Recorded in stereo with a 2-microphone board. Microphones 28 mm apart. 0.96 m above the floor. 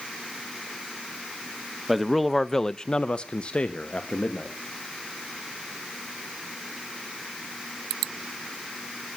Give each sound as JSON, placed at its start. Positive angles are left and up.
{"t": 1.9, "sound": "a man speaking", "side_deg": -5, "distance_m": 1.1}